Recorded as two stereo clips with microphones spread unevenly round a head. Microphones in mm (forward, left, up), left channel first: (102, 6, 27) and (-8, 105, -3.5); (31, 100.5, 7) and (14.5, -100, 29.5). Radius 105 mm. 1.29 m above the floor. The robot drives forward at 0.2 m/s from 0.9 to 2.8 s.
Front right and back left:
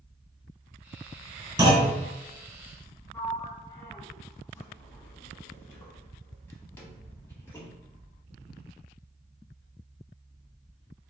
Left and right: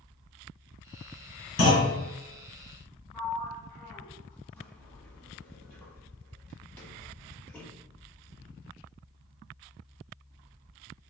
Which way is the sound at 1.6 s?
75° left.